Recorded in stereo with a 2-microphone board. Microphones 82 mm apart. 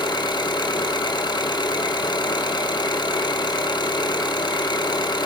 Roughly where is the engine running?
Left.